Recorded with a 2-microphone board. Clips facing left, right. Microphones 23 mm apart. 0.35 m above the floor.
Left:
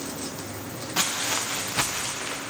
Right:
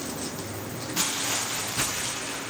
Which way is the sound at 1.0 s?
50° left (ahead or behind).